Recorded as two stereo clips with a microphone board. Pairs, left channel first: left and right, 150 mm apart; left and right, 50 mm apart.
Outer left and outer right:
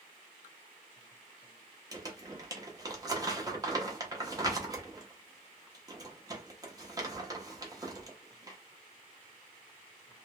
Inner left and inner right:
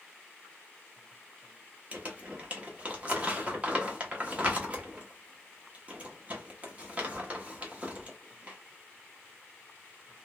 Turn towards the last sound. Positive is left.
turn(degrees=-25)  # may be behind; listen again after turning